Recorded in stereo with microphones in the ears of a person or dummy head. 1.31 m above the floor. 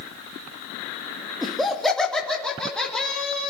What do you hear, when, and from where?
1.4 s laughter: centre (ahead or behind), 1.9 m